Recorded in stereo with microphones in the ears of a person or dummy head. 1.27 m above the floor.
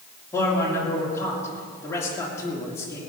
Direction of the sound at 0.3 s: 10° left (ahead or behind).